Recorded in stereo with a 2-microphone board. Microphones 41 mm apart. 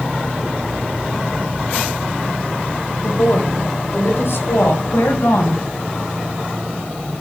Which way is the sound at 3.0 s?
65° left (ahead or behind).